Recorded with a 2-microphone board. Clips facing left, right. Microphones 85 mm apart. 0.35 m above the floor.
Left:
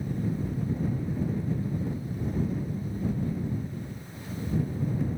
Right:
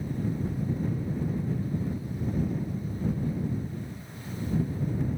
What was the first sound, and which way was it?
Only background noise.